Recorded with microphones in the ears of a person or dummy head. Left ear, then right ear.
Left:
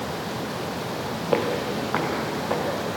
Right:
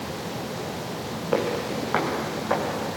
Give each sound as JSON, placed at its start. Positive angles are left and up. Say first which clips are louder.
{"t": 1.3, "sound": "footsteps", "louder": "left 1 dB", "side_deg": 5, "distance_m": 1.8}